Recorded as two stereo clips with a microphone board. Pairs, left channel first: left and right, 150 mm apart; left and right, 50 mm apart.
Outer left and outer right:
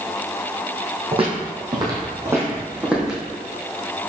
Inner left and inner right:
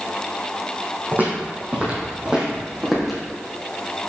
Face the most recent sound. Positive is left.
turn(degrees=-5)  # may be behind; listen again after turning